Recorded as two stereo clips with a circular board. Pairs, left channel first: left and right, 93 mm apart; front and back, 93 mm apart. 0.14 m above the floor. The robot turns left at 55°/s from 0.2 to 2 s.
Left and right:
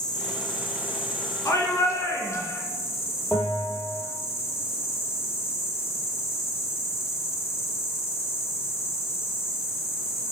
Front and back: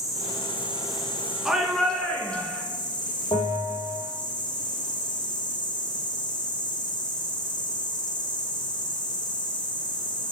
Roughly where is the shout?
Left.